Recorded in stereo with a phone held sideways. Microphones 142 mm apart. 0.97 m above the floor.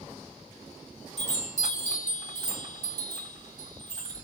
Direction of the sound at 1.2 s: 55° right (ahead or behind).